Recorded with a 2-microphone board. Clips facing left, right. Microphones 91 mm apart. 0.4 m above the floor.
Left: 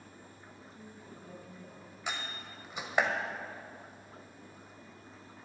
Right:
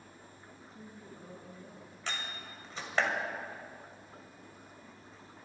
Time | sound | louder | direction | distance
0.6 | a man speaking | right 1 dB | 25° right (ahead or behind) | 6 m
2.1 | a door slam | left 1 dB | 15° left (ahead or behind) | 1.6 m